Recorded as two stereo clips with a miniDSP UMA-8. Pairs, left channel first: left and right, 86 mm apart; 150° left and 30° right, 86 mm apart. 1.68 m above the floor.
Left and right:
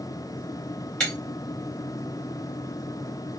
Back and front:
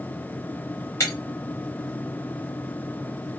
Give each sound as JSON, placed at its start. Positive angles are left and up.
{"t": 1.0, "sound": "breaking glass", "azimuth_deg": 160, "distance_m": 1.8}